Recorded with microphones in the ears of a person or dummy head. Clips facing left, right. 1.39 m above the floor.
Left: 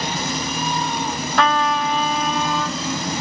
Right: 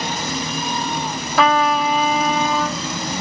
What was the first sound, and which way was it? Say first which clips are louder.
A trumpet: right 3 dB; 5° right (ahead or behind).